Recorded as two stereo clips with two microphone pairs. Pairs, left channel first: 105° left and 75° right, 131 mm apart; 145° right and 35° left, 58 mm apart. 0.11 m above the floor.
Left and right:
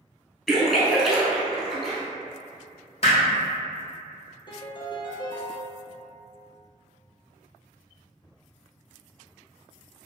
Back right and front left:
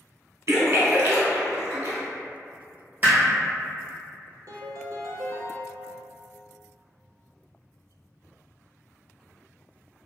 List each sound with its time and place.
0.5 s a splash: 15° left, 1.1 m
3.0 s hammering: 85° left, 1.3 m
4.5 s a piano: 55° left, 0.5 m